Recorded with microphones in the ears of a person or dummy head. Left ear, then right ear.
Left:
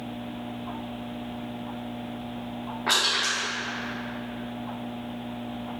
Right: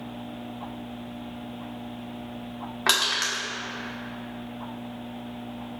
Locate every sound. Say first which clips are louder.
2.9 s crushing: even; 55° right (ahead or behind), 1.7 m